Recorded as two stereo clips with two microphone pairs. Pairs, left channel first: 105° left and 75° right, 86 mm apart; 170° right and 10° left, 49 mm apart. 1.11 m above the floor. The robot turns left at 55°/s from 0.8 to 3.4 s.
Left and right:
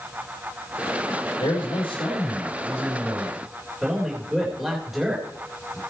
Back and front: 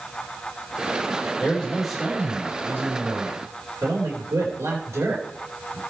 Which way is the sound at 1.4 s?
125° left.